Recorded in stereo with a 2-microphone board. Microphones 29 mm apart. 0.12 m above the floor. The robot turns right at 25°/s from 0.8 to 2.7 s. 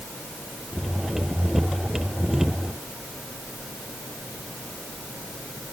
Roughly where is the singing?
I don't hear singing.